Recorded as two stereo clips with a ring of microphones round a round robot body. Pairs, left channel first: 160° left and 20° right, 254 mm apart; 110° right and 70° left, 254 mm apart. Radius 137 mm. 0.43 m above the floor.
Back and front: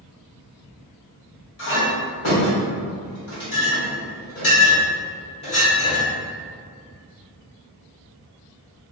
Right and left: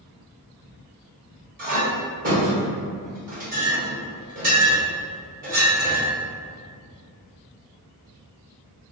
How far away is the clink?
About 1.8 m.